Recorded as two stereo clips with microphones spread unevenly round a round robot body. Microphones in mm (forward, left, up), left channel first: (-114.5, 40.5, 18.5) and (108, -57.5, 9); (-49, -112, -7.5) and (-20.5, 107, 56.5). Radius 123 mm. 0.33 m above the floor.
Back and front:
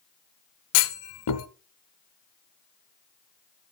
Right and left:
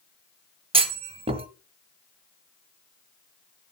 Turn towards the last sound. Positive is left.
turn(degrees=155)